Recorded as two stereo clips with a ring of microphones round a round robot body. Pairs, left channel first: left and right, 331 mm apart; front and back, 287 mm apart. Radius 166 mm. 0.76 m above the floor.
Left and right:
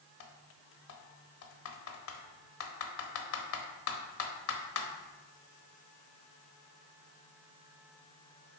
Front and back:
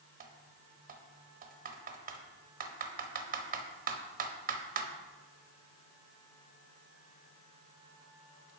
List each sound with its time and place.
0.2 s typing on a keyboard: 125° left, 1.0 m